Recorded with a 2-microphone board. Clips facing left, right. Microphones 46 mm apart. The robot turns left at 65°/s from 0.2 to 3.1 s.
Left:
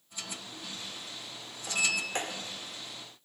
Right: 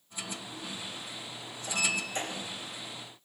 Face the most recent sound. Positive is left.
turn(degrees=65)